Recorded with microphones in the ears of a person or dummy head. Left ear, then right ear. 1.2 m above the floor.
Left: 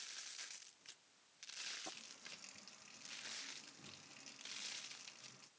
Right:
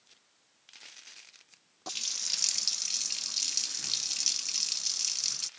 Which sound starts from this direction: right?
A running tap, at 1.9 s.